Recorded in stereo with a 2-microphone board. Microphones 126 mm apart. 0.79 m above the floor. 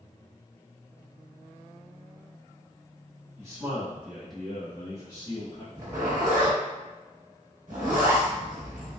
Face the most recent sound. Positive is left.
turn(degrees=-75)  # may be behind; listen again after turning